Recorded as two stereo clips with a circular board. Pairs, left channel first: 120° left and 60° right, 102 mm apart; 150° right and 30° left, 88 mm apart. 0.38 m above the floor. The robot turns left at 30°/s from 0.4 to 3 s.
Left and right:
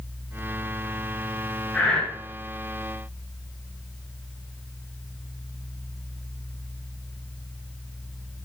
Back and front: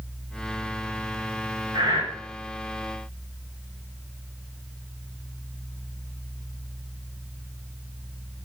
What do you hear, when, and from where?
1.7 s breathing: 40° left, 6 m; by 2.0 s 30° left, 6 m